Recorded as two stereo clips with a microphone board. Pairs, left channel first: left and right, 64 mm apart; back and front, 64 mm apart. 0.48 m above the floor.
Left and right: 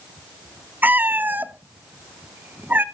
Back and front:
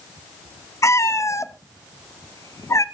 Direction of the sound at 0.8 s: 150° right.